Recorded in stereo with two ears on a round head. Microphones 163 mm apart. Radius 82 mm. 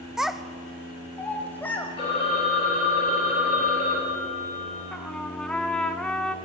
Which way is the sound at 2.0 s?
30° left (ahead or behind).